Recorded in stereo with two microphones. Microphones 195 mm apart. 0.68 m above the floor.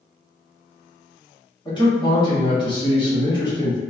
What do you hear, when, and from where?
1.6 s a man speaking: 20° left (ahead or behind), 1.4 m